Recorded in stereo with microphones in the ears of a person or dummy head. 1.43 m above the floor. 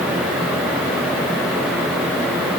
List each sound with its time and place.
Only background noise.